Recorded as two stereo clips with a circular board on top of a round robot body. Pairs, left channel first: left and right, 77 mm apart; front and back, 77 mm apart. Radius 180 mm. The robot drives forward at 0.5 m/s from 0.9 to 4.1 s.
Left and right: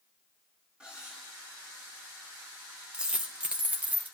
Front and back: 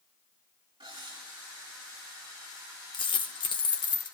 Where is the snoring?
No snoring in this recording.